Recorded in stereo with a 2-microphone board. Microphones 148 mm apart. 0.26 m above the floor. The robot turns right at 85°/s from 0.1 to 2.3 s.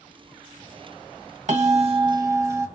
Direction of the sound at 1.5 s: 95° right.